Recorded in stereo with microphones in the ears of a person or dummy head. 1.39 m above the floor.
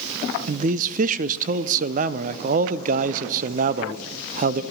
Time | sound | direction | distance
0.5 | a man speaking | 45° right (ahead or behind) | 0.5 m